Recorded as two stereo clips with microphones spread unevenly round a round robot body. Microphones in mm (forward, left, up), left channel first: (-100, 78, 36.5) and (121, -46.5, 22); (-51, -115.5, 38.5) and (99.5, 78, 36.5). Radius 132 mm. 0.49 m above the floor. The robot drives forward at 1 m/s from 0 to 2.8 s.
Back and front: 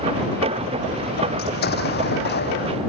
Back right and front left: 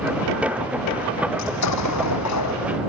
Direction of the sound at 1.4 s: 155° right.